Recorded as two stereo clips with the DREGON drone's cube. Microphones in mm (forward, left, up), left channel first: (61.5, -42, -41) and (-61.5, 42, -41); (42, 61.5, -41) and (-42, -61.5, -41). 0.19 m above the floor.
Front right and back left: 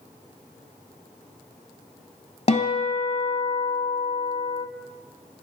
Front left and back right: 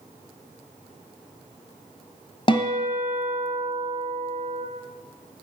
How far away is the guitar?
About 0.9 m.